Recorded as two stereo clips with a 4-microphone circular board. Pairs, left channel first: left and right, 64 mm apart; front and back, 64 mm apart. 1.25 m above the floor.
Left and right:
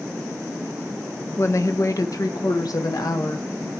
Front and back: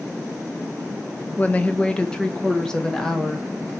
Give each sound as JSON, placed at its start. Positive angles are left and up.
{"t": 1.4, "sound": "a woman speaking", "azimuth_deg": 60, "distance_m": 0.7}